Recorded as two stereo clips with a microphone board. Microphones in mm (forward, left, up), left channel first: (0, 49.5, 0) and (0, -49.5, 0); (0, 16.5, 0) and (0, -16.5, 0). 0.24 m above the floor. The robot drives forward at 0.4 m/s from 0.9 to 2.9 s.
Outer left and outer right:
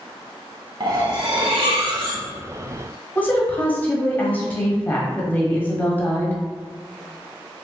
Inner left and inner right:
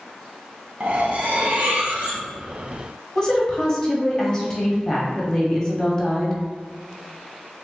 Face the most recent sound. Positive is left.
turn(degrees=20)  # may be behind; listen again after turning